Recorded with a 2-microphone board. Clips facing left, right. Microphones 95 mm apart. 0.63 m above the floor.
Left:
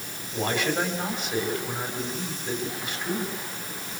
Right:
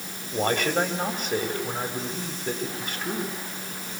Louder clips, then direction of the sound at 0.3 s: Right 2 dB; 45° right (ahead or behind).